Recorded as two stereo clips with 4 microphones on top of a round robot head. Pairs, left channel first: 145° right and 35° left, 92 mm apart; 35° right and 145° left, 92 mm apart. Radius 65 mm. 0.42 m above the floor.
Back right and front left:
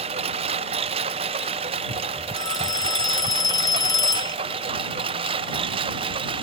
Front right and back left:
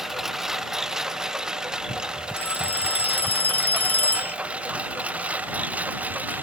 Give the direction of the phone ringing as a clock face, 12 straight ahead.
3 o'clock.